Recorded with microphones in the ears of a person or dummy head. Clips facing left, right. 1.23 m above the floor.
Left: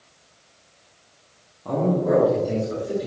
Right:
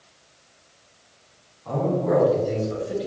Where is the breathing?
No breathing in this recording.